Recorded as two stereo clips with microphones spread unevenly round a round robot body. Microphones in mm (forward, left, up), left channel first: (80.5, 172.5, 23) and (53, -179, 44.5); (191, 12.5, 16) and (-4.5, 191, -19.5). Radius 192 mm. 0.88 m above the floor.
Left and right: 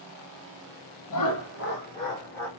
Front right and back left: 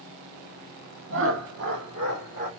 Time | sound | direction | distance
1.1 | laughter | 110° left | 0.7 m